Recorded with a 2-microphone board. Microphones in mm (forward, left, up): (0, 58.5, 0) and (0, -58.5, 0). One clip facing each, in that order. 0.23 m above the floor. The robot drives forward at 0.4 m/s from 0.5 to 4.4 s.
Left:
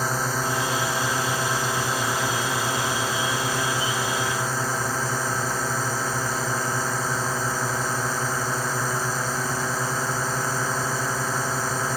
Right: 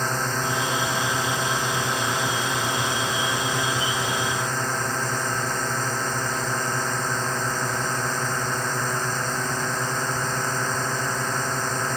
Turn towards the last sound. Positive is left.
turn(degrees=5)  # may be behind; listen again after turning